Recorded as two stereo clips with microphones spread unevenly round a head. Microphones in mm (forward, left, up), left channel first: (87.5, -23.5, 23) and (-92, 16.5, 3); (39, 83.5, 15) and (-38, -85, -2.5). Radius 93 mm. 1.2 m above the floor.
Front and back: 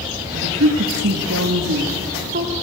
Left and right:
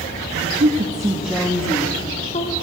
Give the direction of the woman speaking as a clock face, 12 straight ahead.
5 o'clock.